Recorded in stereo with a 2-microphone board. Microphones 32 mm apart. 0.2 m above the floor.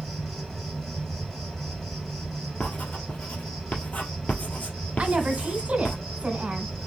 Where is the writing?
60° left (ahead or behind), 1.5 m.